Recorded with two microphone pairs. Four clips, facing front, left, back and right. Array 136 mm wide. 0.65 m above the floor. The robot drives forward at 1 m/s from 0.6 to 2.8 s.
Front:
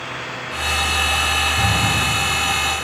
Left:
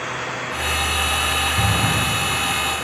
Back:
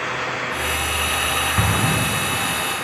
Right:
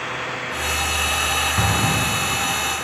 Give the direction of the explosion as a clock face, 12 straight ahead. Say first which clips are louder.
Right 1 dB, even; 4 o'clock.